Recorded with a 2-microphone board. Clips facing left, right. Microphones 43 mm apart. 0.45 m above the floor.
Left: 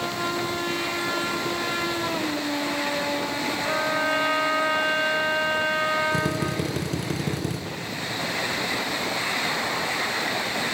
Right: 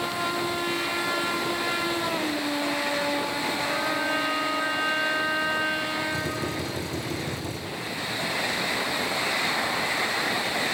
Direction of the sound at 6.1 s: 70° left (ahead or behind).